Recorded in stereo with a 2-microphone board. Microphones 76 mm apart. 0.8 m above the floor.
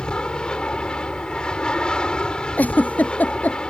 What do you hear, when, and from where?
0.0 s an aircraft: 10° left (ahead or behind)
2.6 s a giggle: 20° left (ahead or behind)